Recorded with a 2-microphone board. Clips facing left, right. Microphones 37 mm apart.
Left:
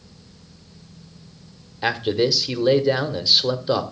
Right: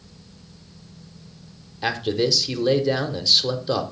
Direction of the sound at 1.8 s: 10° left (ahead or behind).